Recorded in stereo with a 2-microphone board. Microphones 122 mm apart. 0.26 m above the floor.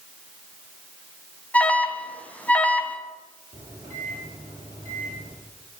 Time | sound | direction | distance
1.5 | an alarm | 10° left (ahead or behind) | 2.5 m
3.5 | a microwave | 60° right (ahead or behind) | 8.5 m